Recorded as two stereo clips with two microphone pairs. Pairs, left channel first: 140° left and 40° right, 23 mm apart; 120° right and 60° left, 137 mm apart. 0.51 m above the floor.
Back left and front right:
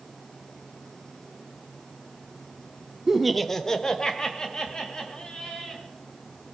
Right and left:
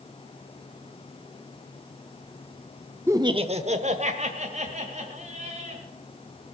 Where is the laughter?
5° left, 0.7 m; by 5.8 s 90° left, 4 m.